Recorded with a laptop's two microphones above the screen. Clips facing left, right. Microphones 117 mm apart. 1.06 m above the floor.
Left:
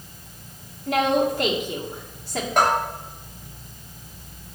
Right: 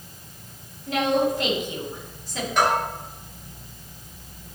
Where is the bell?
55° left (ahead or behind), 3.5 m.